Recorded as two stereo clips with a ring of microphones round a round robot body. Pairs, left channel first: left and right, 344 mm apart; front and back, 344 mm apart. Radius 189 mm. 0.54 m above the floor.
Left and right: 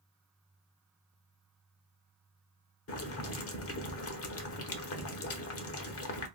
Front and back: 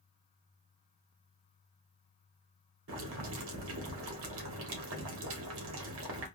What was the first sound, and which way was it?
Boiling, 135° left.